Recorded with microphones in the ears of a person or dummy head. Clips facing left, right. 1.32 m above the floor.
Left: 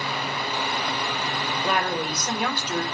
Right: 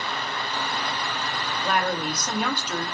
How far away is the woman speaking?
About 1.7 m.